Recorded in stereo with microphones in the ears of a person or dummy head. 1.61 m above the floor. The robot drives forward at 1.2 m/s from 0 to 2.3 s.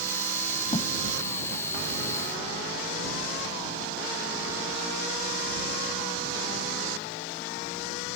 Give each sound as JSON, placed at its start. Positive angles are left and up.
{"t": 0.7, "sound": "a thud", "side_deg": 30}